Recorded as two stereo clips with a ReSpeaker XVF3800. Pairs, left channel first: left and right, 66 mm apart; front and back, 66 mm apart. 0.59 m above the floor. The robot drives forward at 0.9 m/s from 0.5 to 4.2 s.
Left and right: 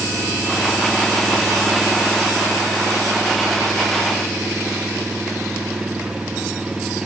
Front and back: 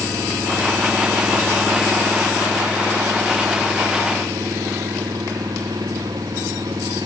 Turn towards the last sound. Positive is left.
turn(degrees=-170)